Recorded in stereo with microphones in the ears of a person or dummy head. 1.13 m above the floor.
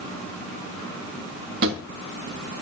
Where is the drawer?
60° right (ahead or behind), 2.0 m.